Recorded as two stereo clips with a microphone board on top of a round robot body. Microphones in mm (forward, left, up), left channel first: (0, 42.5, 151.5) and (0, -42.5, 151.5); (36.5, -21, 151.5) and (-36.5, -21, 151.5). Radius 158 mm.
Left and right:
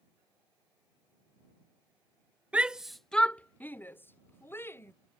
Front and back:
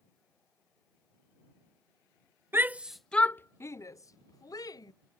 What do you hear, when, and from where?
2.5 s a shout: 155° right; by 4.9 s 30° left